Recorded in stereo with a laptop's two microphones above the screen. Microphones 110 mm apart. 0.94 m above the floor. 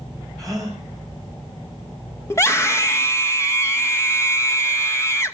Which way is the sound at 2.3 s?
25° left (ahead or behind).